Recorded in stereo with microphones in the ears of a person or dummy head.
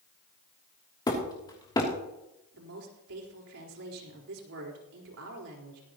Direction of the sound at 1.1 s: 20° left (ahead or behind).